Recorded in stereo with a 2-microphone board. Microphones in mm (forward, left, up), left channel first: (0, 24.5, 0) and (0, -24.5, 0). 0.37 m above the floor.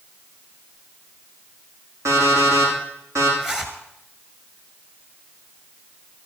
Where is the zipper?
10° right (ahead or behind), 2.5 m.